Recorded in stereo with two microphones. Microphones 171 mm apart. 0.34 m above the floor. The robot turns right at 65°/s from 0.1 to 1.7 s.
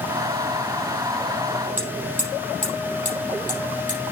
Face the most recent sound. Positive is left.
turn(degrees=-50)  # may be behind; listen again after turning